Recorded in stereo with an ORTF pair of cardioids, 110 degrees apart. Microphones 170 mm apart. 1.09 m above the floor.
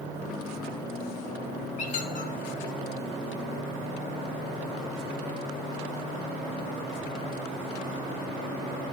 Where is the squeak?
50° left, 0.9 m.